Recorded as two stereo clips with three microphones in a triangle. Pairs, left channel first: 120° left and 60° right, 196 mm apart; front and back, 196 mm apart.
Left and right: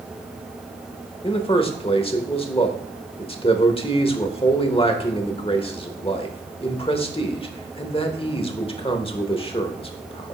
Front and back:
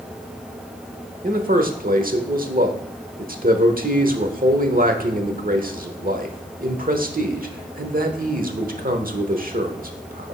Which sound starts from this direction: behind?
A man speaking, at 1.2 s.